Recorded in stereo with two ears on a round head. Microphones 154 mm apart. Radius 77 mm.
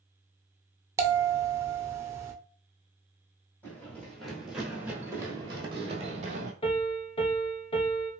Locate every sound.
1.0 s a bell: 15° right (ahead or behind), 0.6 m
3.6 s running footsteps: 10° left (ahead or behind), 1.9 m; by 6.5 s 45° right (ahead or behind), 1.5 m
6.6 s a piano: 35° left (ahead or behind), 1.0 m